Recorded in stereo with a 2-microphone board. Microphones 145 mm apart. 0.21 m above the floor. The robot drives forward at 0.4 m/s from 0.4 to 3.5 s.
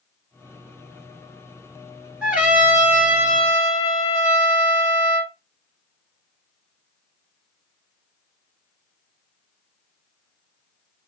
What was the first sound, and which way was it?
A trumpet, 10° right (ahead or behind).